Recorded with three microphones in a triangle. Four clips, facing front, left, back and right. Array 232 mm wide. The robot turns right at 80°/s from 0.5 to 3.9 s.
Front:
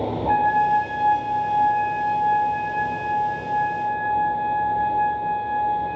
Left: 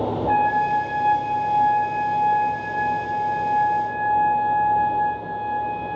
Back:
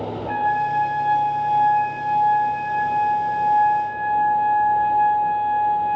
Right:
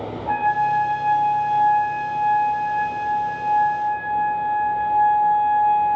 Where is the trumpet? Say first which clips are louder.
Right 1 dB, front 3 dB; straight ahead, 7.5 m; by 6.0 s 85° right, 7.5 m.